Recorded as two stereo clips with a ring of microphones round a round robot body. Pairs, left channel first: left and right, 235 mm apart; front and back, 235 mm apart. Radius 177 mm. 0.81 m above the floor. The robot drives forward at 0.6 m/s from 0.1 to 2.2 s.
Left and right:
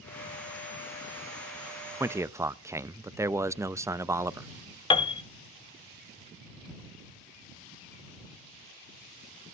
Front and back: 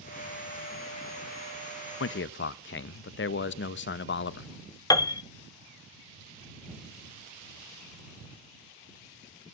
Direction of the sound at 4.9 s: 55° left.